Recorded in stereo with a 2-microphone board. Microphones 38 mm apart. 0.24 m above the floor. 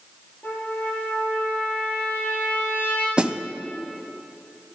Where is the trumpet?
55° left (ahead or behind), 7 m.